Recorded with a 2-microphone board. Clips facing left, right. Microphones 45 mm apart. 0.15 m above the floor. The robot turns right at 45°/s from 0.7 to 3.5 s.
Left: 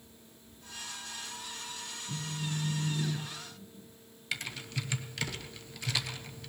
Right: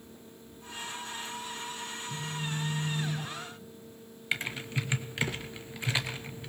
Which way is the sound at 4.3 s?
25° right (ahead or behind).